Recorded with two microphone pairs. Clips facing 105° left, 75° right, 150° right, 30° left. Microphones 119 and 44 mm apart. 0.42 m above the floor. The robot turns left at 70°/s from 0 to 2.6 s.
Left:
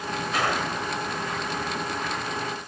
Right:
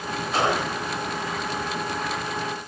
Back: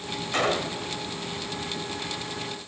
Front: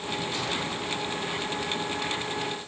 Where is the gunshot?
130° right, 1.2 m; by 0.9 s 170° right, 1.2 m.